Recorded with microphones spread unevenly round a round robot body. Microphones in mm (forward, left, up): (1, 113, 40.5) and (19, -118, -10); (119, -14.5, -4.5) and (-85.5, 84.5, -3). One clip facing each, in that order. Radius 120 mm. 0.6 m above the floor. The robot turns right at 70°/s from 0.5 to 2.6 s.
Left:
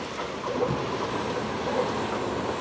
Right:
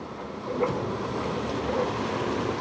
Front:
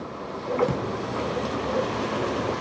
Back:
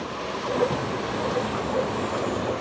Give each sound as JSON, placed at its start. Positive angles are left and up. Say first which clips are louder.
{"t": 0.6, "sound": "a drawer", "louder": "right 1 dB, front 1 dB", "azimuth_deg": 5, "distance_m": 7.0}